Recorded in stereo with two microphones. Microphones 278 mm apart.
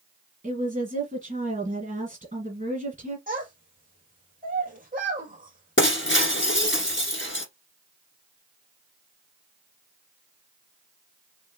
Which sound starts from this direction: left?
Breaking glass, at 5.8 s.